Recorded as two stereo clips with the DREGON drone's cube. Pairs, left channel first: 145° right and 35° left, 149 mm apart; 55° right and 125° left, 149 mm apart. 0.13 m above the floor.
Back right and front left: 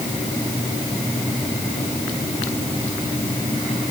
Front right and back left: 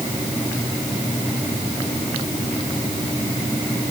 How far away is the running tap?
No running tap in this recording.